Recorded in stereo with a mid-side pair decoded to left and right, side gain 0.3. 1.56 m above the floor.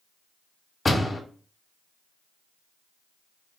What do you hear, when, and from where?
0.8 s a door slam: 40° left, 2 m